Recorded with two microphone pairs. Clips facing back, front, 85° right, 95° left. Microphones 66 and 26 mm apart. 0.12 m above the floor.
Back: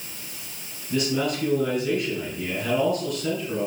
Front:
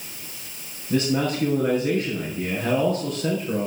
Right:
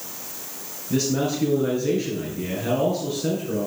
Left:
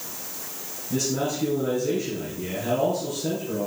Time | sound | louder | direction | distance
0.9 | a man speaking | front 2 dB, right 3 dB | 45° right | 2.5 m